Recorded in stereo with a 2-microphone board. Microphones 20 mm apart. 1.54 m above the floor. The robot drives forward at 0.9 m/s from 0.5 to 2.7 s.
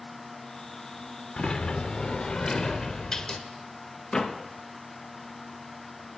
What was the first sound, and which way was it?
A sliding door, 50° left (ahead or behind).